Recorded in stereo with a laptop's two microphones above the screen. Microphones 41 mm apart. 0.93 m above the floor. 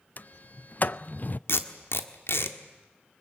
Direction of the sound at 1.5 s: 90° left.